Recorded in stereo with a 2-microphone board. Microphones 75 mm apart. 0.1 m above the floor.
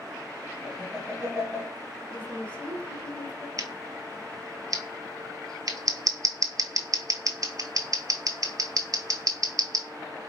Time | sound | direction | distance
0.6 | laughter | 25° right (ahead or behind) | 3 m
2.1 | a woman speaking | 15° left (ahead or behind) | 1.2 m
3.6 | scissors | 55° right (ahead or behind) | 0.6 m